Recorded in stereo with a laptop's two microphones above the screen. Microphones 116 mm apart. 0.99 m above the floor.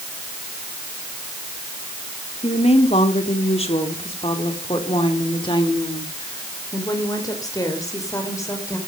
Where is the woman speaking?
70° left (ahead or behind), 3 m; by 8.8 s 25° left (ahead or behind), 5 m.